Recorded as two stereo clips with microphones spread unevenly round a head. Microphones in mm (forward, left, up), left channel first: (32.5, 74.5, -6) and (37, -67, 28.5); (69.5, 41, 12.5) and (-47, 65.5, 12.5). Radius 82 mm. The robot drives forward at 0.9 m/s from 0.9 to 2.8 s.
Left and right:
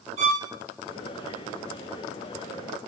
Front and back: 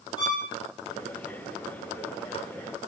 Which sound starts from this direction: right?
A violin, at 0.2 s.